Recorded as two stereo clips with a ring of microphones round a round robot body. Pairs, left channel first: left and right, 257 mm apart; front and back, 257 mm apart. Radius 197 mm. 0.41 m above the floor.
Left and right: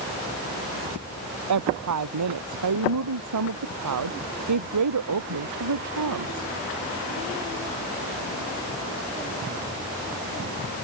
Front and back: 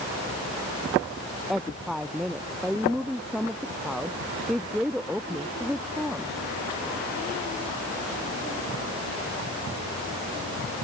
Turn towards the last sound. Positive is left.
turn(degrees=-90)